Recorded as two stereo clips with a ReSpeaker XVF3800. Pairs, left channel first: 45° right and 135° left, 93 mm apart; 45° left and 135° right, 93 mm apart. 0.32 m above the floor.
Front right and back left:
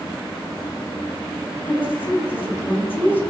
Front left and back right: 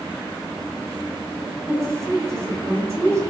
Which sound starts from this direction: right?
A woman speaking, at 1.7 s.